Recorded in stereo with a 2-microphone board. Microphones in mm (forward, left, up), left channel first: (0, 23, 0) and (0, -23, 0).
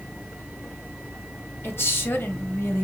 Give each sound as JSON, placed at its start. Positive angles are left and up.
{"t": 1.6, "sound": "a woman speaking", "side_deg": 55, "distance_m": 1.4}